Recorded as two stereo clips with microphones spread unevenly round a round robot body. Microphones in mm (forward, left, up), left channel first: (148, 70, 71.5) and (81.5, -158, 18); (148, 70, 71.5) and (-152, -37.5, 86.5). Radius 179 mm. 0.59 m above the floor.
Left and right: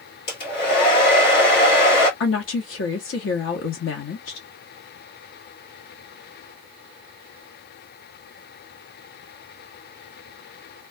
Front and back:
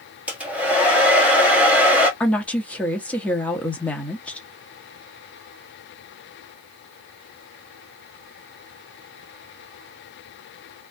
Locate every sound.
0.3 s a hair dryer: 110° left, 1.4 m
2.2 s a woman speaking: 100° left, 1.0 m